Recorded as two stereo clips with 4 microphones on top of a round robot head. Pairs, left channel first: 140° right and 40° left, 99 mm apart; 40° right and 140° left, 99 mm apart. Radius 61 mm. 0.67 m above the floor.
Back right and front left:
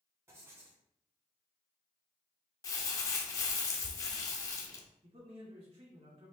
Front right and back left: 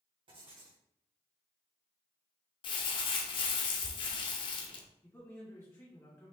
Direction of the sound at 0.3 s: 105° left.